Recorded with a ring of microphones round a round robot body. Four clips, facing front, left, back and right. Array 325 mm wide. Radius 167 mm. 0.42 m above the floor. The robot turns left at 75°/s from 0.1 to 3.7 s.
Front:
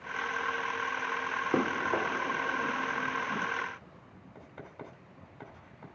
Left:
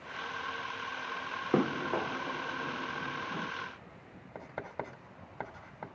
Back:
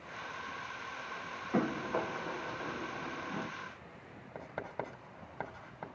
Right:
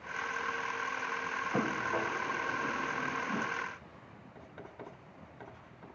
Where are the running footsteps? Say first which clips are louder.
Left 4 dB, front 2 dB; 55° left, 8.5 m; by 3.5 s 80° right, 8 m.